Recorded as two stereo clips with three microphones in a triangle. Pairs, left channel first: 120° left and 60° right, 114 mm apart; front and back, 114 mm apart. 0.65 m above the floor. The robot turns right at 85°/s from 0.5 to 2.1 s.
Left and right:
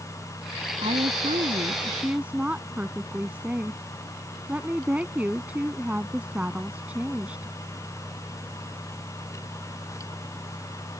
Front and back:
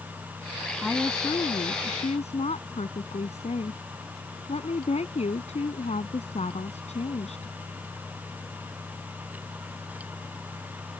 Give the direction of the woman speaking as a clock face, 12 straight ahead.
3 o'clock.